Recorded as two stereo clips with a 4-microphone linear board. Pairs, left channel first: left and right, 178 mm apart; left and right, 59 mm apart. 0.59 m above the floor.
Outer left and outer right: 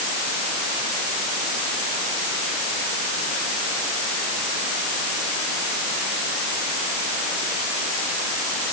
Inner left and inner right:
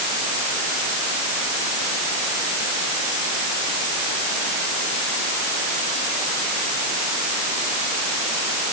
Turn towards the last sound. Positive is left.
No sound to turn to.